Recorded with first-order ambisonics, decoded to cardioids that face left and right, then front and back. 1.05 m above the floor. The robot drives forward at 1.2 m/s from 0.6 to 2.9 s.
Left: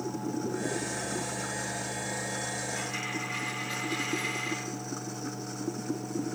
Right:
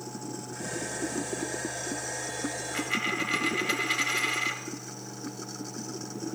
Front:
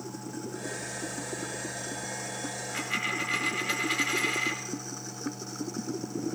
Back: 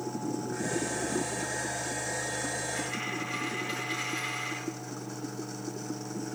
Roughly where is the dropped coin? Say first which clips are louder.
Right 5 dB, front 3 dB; ahead right.